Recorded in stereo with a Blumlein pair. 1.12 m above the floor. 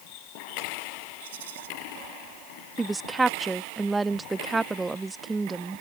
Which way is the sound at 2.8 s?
10° right.